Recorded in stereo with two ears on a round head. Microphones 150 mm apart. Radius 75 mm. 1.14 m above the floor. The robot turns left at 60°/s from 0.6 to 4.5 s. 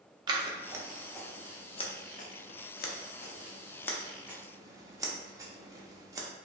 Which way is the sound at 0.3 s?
25° right (ahead or behind).